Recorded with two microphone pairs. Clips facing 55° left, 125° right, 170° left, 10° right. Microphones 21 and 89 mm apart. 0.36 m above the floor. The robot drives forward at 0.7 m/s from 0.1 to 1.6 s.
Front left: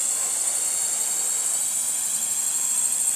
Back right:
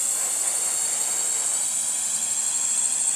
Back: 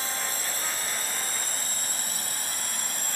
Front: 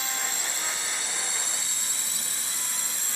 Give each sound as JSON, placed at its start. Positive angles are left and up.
{"t": 0.0, "sound": "a drone", "azimuth_deg": 140}